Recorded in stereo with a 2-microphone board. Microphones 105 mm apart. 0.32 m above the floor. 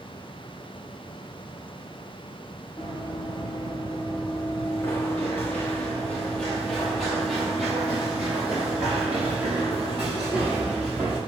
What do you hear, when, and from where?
2.8 s running footsteps: 45° left (ahead or behind), 3.5 m; by 11.2 s 20° right (ahead or behind), 7 m